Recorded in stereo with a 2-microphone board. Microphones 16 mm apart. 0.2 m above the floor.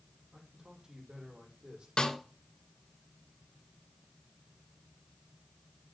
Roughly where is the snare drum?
Left.